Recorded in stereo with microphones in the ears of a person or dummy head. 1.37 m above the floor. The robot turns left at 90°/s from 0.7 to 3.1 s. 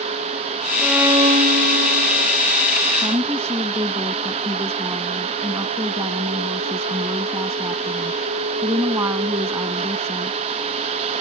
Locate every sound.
0.8 s a violin: 5° left; by 2.4 s 140° right
3.0 s a woman speaking: 10° right (ahead or behind); by 10.4 s 20° right (ahead or behind)